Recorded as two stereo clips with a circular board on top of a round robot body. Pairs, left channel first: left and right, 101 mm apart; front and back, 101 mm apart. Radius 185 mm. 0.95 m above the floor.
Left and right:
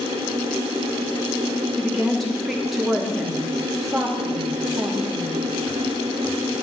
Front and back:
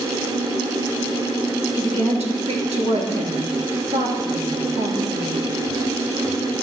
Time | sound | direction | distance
1.8 | a woman speaking | straight behind | 3 m